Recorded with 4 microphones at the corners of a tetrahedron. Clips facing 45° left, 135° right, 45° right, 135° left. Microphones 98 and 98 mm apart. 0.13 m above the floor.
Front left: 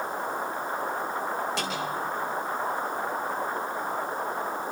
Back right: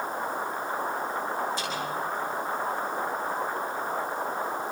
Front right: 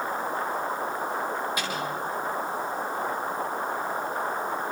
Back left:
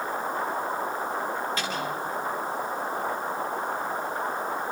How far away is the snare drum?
About 8.5 m.